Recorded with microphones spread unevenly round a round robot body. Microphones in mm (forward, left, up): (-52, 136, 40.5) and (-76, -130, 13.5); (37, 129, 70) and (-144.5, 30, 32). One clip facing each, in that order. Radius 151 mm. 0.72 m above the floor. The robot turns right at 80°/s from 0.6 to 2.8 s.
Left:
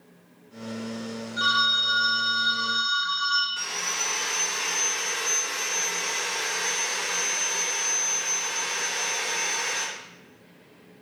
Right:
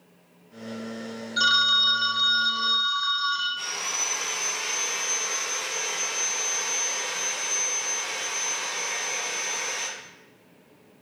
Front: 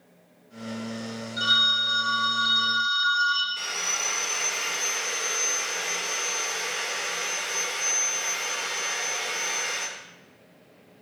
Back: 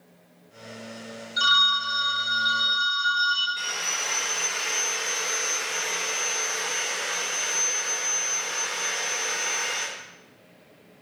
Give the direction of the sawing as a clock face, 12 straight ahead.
10 o'clock.